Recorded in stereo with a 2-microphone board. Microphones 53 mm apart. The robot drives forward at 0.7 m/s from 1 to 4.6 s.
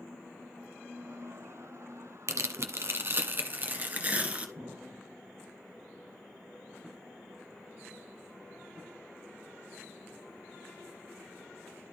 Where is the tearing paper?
65° right (ahead or behind), 1.0 m; by 4.5 s 25° right (ahead or behind), 2 m.